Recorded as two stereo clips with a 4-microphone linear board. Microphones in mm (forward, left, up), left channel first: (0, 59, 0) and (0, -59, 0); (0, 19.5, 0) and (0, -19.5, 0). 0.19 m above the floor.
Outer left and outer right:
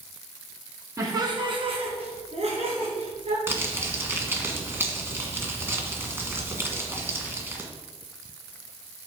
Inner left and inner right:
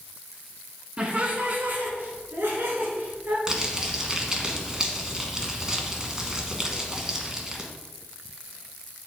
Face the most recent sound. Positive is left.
turn(degrees=-20)  # may be behind; listen again after turning